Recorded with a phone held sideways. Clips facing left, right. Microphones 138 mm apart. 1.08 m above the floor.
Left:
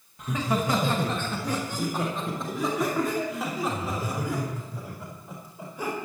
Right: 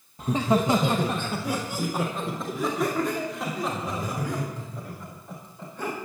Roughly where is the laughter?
Right.